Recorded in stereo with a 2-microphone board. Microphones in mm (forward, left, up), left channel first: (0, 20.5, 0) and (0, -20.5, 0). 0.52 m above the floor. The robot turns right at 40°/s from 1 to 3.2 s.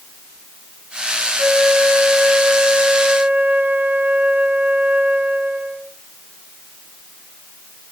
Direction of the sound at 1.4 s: 150° right.